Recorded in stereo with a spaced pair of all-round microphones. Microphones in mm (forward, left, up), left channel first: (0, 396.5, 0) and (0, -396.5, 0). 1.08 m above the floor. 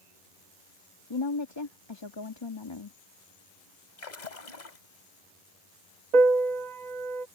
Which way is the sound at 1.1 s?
35° left (ahead or behind).